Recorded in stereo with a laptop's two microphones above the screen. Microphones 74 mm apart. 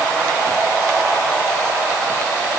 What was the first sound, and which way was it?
Only background noise.